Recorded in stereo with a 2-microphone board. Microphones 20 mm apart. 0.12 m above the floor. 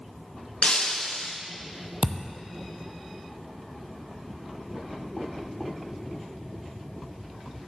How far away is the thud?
About 0.7 m.